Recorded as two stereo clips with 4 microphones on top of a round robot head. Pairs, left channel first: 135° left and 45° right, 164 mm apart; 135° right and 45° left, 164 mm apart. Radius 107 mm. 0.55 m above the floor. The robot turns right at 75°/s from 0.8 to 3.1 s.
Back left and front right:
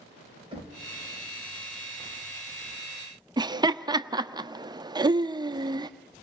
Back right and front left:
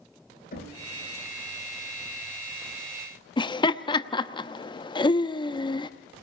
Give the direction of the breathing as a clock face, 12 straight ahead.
No breathing in this recording.